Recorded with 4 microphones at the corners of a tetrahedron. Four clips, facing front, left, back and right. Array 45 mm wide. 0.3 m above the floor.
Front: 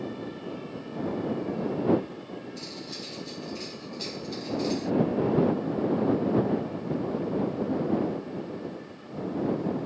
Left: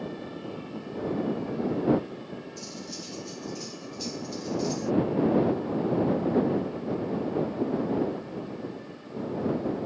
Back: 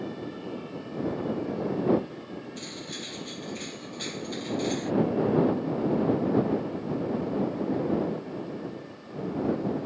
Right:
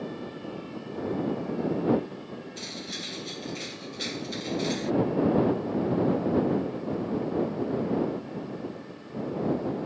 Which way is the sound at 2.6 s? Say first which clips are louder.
Right 3 dB, back 1 dB; 115° right.